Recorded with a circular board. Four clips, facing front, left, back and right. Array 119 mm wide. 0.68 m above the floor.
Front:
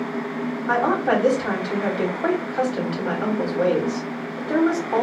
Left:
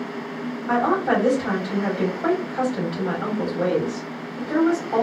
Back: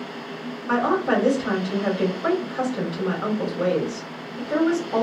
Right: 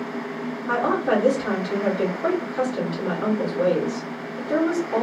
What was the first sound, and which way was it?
A woman speaking, 5° left.